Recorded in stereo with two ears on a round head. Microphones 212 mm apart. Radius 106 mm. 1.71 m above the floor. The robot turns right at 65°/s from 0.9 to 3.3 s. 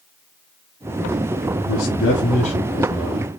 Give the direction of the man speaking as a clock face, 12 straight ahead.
9 o'clock.